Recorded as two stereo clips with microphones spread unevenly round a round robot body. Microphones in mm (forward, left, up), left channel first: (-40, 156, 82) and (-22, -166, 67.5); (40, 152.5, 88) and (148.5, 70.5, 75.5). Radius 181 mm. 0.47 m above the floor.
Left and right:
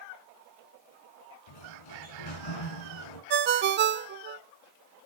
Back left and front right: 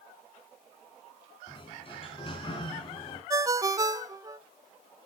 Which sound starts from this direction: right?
A ringtone, at 3.3 s.